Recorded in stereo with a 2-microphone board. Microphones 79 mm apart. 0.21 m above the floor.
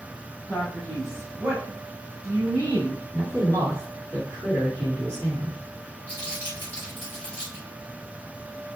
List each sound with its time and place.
0.5 s a man speaking: 20° left (ahead or behind), 1.0 m; by 3.0 s 45° right (ahead or behind), 1.4 m
3.1 s a man speaking: 40° right (ahead or behind), 1.8 m
6.1 s crumpling: 25° right (ahead or behind), 1.7 m